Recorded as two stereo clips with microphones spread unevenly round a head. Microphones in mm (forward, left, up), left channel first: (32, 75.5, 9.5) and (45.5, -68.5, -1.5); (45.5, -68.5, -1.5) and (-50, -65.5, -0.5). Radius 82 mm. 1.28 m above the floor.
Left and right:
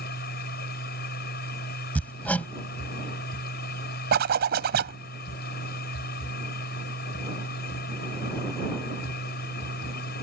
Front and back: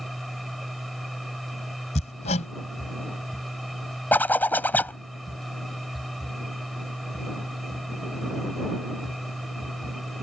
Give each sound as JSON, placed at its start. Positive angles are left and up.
{"t": 0.0, "sound": "a machine running", "azimuth_deg": 90}
{"t": 1.9, "sound": "hammering", "azimuth_deg": 15}
{"t": 4.1, "sound": "a zipper", "azimuth_deg": -75}